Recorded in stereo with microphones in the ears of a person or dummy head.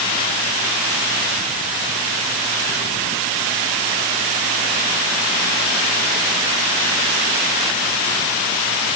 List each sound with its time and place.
Only background noise.